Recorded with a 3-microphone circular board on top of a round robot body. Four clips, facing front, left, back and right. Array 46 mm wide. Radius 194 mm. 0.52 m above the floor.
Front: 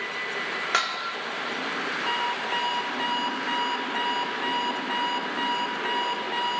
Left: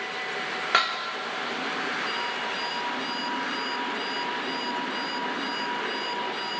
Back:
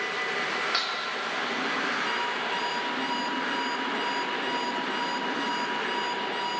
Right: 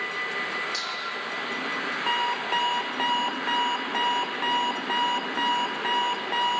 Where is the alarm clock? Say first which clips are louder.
Right 4 dB, front 2 dB; 65° right, 1.5 m.